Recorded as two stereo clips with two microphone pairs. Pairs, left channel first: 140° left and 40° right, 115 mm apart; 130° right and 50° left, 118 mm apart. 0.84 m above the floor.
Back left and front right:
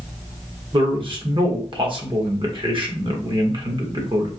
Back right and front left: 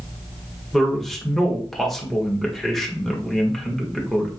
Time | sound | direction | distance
0.7 | a man speaking | 40° right | 1.1 m